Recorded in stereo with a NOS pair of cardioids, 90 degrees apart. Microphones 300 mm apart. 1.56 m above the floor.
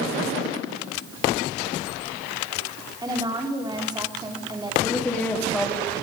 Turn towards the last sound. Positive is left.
turn(degrees=5)